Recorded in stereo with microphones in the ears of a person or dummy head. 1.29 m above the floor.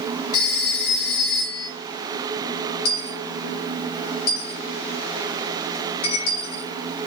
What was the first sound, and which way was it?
A phone ringing, 40° left (ahead or behind).